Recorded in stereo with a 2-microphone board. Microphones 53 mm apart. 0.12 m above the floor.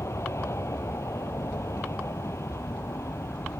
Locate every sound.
0.0 s an aircraft: 65° left (ahead or behind)